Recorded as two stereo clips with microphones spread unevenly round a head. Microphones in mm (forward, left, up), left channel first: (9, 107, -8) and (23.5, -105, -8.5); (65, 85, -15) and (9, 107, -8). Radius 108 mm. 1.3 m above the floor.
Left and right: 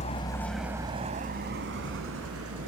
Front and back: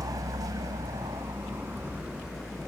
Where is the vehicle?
155° left; by 2.7 s 110° right.